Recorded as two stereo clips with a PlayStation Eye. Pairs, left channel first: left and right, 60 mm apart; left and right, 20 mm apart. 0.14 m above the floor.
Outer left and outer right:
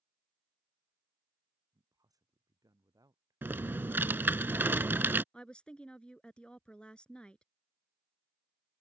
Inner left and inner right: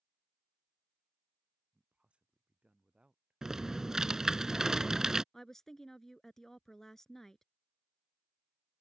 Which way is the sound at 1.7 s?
80° right.